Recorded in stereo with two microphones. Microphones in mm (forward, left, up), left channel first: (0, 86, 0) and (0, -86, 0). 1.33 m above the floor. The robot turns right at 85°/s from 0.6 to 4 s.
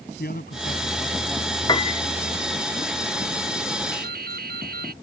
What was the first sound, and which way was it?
A man speaking, 120° left.